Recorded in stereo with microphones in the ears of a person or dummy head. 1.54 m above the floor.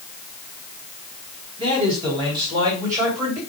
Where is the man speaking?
30° right (ahead or behind), 2.5 m; by 3.4 s 10° right (ahead or behind), 2.5 m.